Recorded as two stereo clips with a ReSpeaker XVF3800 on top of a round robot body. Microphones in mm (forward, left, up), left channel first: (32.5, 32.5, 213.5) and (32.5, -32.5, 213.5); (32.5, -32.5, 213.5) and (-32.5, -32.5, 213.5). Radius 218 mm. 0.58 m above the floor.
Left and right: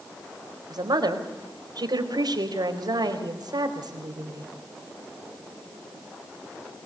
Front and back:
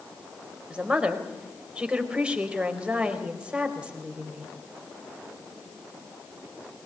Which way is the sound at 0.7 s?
105° right.